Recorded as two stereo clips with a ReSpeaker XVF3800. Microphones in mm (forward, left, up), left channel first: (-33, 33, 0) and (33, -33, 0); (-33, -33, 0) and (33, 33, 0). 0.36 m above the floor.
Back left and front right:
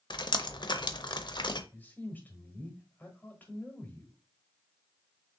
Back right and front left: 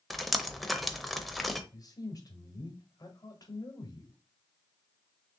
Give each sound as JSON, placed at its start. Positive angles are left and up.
{"t": 0.1, "sound": "dripping", "azimuth_deg": 135, "distance_m": 0.6}
{"t": 1.7, "sound": "a man speaking", "azimuth_deg": -160, "distance_m": 1.3}